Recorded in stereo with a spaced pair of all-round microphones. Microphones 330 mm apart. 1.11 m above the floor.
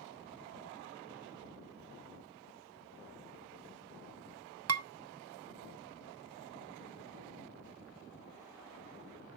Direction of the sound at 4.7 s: 50° right (ahead or behind).